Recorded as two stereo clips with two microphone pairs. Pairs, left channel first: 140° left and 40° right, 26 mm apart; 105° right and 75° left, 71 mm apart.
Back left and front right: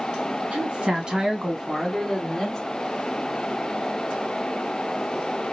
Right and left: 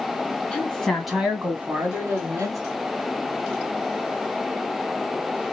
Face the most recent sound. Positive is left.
turn(degrees=70)